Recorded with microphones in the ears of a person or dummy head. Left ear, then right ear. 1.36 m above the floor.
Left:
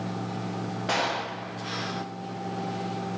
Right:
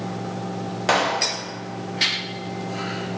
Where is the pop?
35° right (ahead or behind), 0.5 m.